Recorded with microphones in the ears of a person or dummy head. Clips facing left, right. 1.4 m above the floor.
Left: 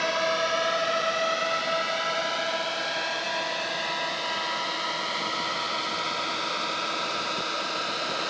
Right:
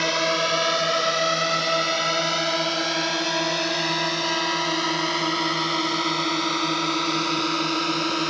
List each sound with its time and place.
0.0 s a drone: 55° right (ahead or behind); by 8.3 s 65° right (ahead or behind)